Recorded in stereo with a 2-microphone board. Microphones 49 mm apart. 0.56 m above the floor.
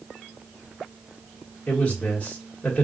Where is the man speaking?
35° left (ahead or behind), 1.7 m.